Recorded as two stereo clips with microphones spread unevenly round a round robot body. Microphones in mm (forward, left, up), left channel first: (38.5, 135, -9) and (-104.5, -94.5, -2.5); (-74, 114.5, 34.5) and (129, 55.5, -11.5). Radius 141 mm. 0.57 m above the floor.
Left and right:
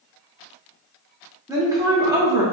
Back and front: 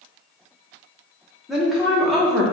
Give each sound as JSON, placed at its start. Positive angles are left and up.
{"t": 1.5, "sound": "a woman speaking", "azimuth_deg": -60, "distance_m": 0.6}